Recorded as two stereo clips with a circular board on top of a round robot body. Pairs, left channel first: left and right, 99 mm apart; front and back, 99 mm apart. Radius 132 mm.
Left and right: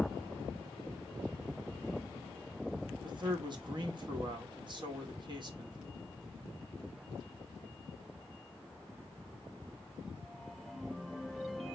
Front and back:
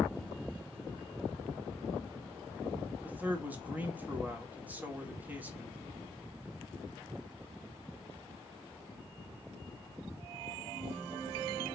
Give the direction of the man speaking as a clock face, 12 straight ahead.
4 o'clock.